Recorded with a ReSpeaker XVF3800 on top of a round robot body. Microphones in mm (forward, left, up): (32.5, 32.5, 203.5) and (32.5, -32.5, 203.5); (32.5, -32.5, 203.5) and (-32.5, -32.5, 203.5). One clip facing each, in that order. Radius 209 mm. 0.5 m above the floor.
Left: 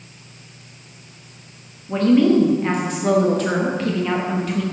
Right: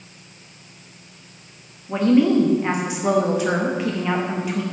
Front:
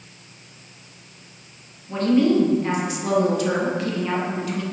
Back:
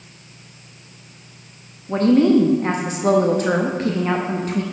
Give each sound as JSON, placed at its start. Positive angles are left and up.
{"t": 1.9, "sound": "a woman speaking", "azimuth_deg": -160, "distance_m": 1.3}